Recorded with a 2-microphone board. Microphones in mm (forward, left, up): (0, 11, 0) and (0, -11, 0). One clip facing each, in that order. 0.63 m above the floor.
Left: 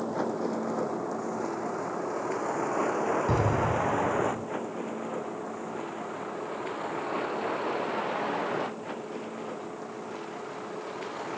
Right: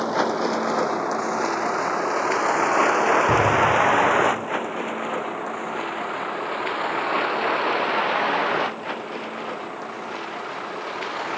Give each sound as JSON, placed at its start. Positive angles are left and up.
{"t": 0.0, "sound": "a vehicle", "side_deg": -80}
{"t": 3.3, "sound": "an explosion", "side_deg": -5}